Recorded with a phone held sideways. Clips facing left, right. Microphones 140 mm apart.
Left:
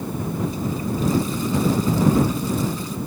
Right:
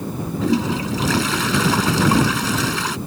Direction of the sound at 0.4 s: 85° right.